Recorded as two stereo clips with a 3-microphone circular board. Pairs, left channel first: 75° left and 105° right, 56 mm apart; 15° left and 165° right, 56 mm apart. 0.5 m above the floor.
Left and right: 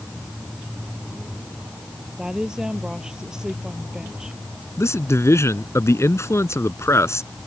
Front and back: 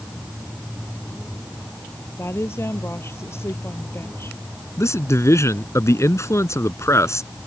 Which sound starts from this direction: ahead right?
A woman speaking, at 2.2 s.